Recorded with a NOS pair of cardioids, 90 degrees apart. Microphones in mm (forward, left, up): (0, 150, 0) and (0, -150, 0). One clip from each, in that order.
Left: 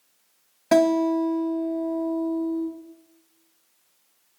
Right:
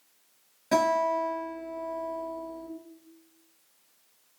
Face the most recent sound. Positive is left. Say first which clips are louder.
# left 5 dB
turn(degrees=55)